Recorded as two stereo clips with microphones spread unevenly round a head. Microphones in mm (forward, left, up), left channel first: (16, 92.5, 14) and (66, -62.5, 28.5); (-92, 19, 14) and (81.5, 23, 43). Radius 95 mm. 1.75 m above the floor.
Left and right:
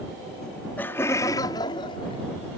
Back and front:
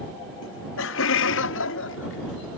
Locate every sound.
0.4 s laughter: 165° right; by 2.5 s 170° left